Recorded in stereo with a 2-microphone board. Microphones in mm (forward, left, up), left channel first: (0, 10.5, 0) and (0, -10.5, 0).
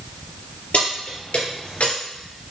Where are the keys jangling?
80° left, 4.5 m; by 1.9 s 75° left (ahead or behind), 3 m.